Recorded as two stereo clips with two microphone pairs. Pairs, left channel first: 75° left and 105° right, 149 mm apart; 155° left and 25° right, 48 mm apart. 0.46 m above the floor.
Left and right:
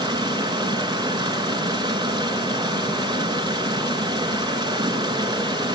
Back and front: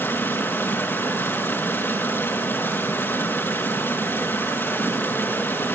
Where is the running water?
170° right, 6 m.